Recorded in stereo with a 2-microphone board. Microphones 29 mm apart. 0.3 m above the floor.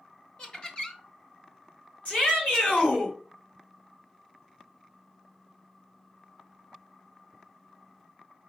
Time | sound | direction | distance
0.4 | laughter | 35° left (ahead or behind) | 1.0 m
2.0 | a shout | 60° left (ahead or behind) | 3.5 m